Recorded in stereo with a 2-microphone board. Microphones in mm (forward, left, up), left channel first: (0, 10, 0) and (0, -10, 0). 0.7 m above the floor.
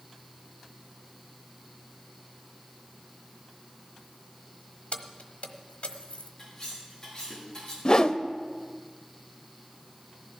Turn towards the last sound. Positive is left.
turn(degrees=35)  # may be behind; listen again after turning